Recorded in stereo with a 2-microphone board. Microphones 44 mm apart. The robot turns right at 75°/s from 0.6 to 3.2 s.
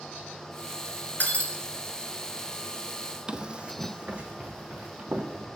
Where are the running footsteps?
20° right (ahead or behind), 0.5 m; by 5.5 s 30° right (ahead or behind), 2 m.